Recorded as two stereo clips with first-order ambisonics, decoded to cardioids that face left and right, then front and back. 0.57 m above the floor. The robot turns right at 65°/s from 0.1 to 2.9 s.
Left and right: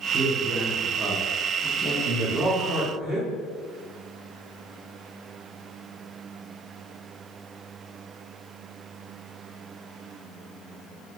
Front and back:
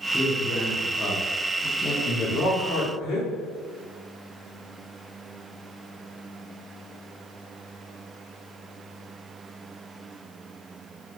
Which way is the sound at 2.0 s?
80° right.